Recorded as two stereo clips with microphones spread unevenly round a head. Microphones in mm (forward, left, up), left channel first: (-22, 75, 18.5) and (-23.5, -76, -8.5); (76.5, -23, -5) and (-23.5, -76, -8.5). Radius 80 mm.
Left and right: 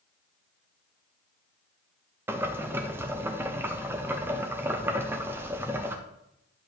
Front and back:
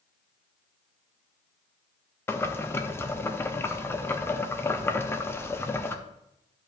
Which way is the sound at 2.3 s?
35° right.